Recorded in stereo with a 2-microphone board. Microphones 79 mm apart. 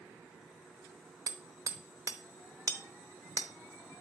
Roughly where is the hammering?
Right.